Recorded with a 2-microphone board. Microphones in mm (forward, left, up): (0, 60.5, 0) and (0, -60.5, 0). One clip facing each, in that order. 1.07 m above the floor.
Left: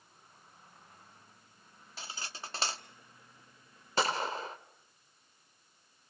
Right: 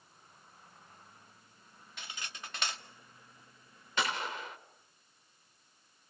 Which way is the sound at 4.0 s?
35° left (ahead or behind).